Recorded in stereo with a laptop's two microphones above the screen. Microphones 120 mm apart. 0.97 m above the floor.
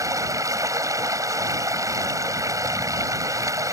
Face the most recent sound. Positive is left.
turn(degrees=-25)  # may be behind; listen again after turning